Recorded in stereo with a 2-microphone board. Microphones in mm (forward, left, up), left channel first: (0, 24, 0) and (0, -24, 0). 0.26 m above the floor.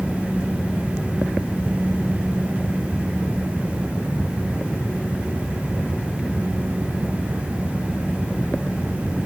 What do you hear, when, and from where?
Only background noise.